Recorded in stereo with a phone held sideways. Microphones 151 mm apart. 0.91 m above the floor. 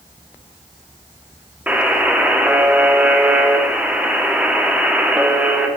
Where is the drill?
No drill in this recording.